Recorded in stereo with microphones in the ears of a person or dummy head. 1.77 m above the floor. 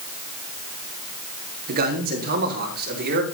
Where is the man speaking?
55° right (ahead or behind), 3 m; by 3.2 s 60° right (ahead or behind), 4.5 m.